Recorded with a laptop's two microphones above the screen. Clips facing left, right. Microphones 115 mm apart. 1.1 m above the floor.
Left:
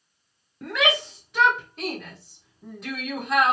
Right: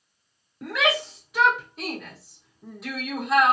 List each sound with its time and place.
0.6 s a shout: 5° right (ahead or behind), 0.7 m